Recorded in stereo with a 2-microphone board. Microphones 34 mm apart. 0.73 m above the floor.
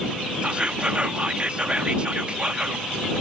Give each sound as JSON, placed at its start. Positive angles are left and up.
{"t": 0.4, "sound": "whispering", "side_deg": -30}